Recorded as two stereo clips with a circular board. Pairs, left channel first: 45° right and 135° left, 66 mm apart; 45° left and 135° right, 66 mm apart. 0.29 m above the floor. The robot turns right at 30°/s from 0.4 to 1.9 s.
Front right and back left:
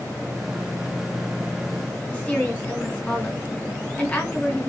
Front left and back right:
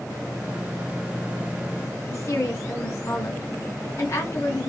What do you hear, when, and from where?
2.1 s a woman speaking: 30° left, 2 m